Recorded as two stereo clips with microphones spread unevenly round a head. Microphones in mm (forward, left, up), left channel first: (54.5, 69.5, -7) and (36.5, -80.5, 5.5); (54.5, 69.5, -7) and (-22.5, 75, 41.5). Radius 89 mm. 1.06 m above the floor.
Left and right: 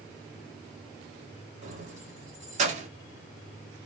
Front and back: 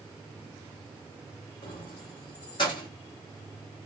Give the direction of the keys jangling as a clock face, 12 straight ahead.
2 o'clock.